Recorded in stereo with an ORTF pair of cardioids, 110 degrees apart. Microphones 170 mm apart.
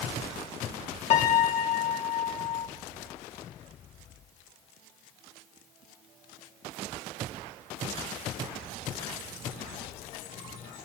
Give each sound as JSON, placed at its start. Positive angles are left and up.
{"t": 1.1, "sound": "a piano", "azimuth_deg": 45, "distance_m": 0.6}